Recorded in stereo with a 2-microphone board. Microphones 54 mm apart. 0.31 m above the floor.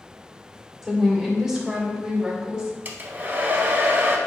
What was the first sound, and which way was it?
A woman speaking, centre (ahead or behind).